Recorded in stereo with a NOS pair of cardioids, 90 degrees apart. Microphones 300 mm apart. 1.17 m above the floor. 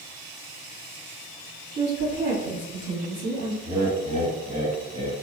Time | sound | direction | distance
1.7 | a woman speaking | 65° right | 1.5 m
3.6 | laughter | 15° right | 1.6 m